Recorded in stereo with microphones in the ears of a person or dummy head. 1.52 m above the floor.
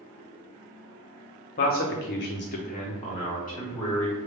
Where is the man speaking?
50° left (ahead or behind), 0.6 m; by 4.2 s 15° left (ahead or behind), 1.0 m.